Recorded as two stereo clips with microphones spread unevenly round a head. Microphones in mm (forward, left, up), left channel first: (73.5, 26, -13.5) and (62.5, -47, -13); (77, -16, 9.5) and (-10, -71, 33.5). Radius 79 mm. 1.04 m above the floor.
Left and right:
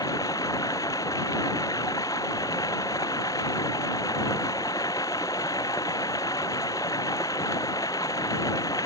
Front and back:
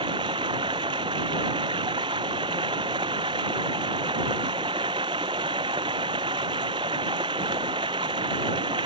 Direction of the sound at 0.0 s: 150° left.